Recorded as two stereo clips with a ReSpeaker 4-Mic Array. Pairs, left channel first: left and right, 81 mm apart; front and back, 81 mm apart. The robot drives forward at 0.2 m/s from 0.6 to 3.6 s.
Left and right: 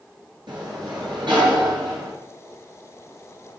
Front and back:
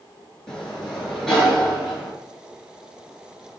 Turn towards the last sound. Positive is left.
turn(degrees=-90)